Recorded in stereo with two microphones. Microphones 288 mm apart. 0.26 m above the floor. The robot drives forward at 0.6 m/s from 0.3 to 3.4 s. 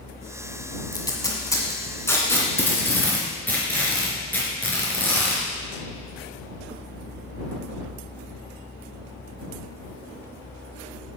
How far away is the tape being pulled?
About 1.1 m.